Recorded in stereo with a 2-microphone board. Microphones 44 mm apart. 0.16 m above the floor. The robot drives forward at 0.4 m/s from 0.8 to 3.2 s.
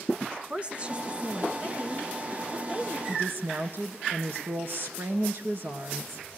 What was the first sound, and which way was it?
A woman speaking, 30° right (ahead or behind).